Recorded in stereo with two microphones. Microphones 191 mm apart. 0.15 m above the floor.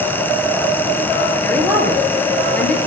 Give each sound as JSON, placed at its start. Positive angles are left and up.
{"t": 1.4, "sound": "a woman speaking", "side_deg": 10, "distance_m": 3.0}